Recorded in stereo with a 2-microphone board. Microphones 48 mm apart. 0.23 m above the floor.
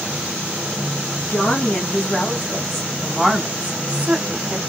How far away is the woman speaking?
About 1.4 m.